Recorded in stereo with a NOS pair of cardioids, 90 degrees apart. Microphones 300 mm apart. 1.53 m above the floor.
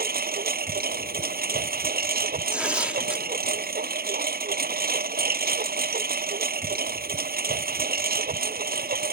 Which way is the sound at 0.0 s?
30° right.